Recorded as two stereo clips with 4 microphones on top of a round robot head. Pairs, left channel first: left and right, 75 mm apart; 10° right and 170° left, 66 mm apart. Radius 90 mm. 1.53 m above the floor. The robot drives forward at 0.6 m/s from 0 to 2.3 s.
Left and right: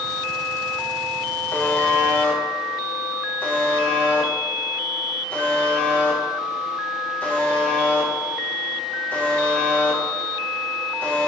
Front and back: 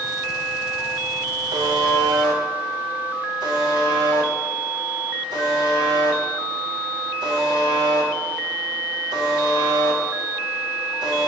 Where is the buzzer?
155° left, 0.9 m; by 11.3 s 160° left, 1.3 m.